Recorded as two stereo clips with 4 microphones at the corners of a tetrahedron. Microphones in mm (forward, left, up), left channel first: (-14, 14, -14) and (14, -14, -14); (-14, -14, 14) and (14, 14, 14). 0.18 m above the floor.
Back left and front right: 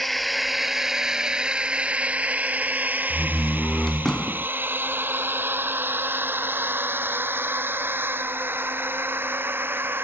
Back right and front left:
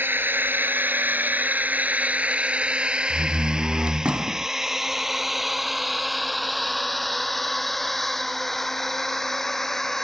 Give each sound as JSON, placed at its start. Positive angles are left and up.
{"t": 0.0, "sound": "a drone", "azimuth_deg": 45}
{"t": 3.1, "sound": "a door slam", "azimuth_deg": 70}